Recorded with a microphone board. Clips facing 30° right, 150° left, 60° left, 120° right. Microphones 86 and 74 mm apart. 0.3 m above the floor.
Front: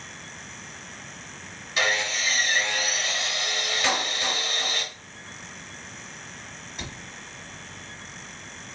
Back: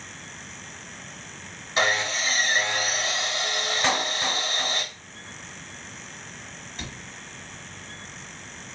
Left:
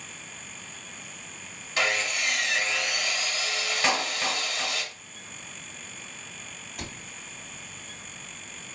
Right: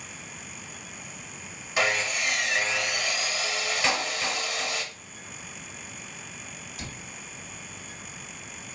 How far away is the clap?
About 1.2 m.